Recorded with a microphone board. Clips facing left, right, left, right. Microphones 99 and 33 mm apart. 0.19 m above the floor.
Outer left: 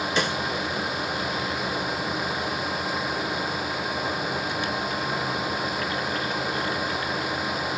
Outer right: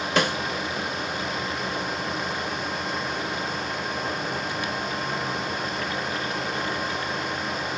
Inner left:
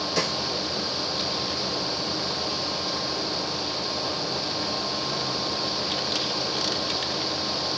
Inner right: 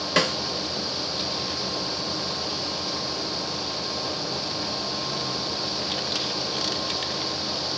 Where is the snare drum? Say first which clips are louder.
Outer right 4 dB, inner right 6 dB; 65° right (ahead or behind), 0.7 m.